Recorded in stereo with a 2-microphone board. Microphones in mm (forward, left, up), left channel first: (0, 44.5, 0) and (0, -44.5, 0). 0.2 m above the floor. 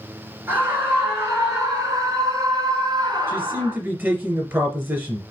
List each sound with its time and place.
0.5 s a scream: 25° right (ahead or behind), 3.5 m; by 3.8 s 50° right (ahead or behind), 2 m
3.3 s a man speaking: 25° right (ahead or behind), 2.5 m